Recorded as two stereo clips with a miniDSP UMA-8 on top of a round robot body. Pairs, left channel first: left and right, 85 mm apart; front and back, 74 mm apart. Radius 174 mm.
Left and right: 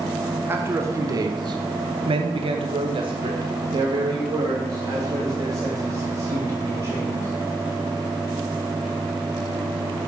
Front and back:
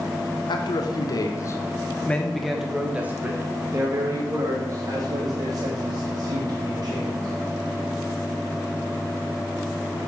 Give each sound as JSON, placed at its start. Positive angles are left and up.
{"t": 0.5, "sound": "a man speaking", "azimuth_deg": -25, "distance_m": 1.1}